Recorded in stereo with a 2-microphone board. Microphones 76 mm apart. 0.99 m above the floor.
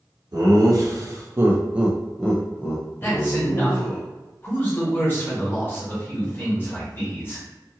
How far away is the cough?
No cough in this recording.